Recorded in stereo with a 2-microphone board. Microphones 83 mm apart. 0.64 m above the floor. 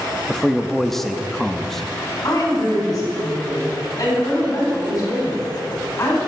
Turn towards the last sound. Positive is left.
turn(degrees=45)  # may be behind; listen again after turning